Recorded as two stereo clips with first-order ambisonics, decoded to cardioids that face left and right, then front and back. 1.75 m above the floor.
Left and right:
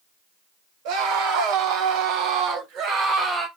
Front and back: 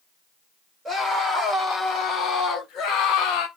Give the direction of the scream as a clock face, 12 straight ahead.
3 o'clock.